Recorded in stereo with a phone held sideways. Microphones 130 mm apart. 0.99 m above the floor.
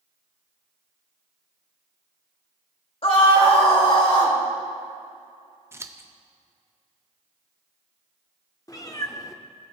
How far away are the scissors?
About 0.5 m.